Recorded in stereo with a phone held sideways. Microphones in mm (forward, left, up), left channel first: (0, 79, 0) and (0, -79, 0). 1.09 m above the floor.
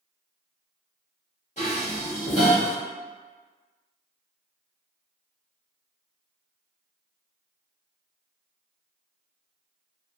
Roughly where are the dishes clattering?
Left.